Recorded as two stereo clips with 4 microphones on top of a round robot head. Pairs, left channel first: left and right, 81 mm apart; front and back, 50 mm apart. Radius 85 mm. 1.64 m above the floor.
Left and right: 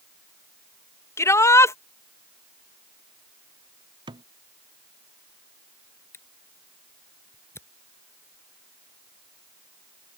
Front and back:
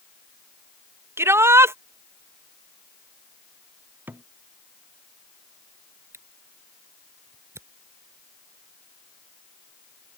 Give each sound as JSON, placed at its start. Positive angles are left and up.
{"t": 1.2, "sound": "a shout", "azimuth_deg": 145}
{"t": 4.1, "sound": "a thud", "azimuth_deg": -120}
{"t": 6.1, "sound": "a camera shutter", "azimuth_deg": 150}